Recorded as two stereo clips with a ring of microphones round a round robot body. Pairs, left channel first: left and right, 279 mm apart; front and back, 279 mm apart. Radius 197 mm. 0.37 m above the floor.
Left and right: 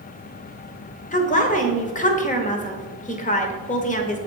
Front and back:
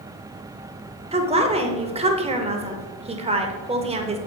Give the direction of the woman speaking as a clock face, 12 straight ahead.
8 o'clock.